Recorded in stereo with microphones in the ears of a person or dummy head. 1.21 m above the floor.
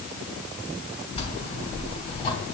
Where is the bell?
30° left (ahead or behind), 3.5 m.